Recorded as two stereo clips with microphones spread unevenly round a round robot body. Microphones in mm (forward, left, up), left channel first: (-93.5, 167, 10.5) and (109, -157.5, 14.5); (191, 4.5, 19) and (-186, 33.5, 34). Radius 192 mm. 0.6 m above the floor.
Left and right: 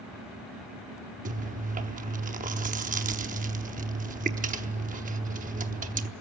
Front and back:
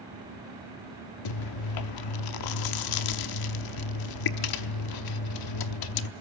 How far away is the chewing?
About 0.9 m.